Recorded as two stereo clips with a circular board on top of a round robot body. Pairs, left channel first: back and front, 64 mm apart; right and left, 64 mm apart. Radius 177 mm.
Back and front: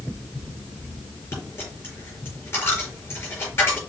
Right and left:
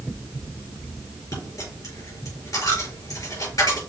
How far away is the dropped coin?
About 4.5 m.